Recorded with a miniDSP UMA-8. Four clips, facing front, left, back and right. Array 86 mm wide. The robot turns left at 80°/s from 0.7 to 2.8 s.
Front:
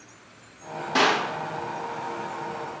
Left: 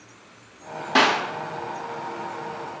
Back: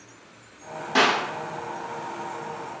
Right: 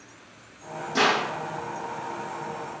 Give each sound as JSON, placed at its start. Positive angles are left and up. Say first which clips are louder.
{"t": 0.9, "sound": "a clap", "louder": "left 3 dB, back 1 dB", "azimuth_deg": 95, "distance_m": 7.0}